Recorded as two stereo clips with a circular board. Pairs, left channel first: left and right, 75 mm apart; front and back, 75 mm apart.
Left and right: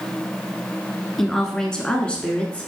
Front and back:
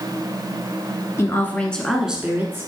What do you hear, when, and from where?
1.2 s a woman speaking: 10° left, 1.3 m; by 2.7 s 155° left, 1.3 m